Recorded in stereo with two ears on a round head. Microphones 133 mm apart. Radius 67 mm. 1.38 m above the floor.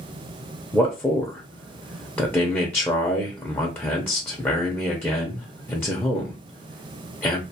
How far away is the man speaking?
About 0.5 m.